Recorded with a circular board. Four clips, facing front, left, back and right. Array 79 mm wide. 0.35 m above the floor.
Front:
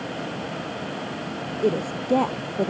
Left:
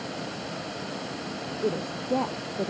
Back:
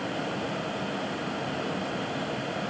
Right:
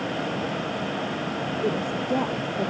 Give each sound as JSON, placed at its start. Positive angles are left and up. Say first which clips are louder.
{"t": 1.6, "sound": "a woman speaking", "louder": "right 1 dB, front 7 dB", "azimuth_deg": -5}